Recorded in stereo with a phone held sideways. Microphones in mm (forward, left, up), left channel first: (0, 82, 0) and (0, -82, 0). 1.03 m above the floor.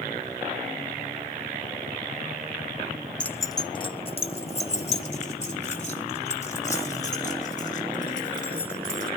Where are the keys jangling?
5° left (ahead or behind), 0.5 m; by 9.1 s 50° left (ahead or behind), 5.5 m.